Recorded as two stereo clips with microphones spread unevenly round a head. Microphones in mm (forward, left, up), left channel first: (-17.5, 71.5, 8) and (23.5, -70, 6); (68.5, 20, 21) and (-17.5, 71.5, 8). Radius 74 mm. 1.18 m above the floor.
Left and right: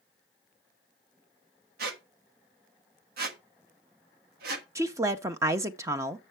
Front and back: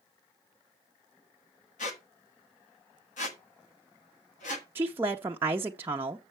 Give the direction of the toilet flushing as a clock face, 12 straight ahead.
I don't hear a toilet flushing.